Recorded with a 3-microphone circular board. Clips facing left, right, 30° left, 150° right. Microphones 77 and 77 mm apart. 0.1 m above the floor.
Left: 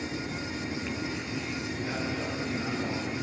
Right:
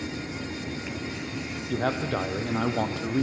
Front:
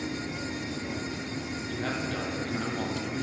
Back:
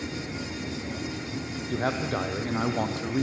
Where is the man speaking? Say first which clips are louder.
Right 9 dB, back 5 dB; 100° right, 3 m.